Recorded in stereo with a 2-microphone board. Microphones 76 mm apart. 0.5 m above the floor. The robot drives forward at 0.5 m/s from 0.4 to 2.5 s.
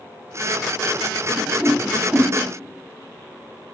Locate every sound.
1.3 s a whoosh: 15° right (ahead or behind), 1.0 m; by 2.3 s 30° right (ahead or behind), 0.5 m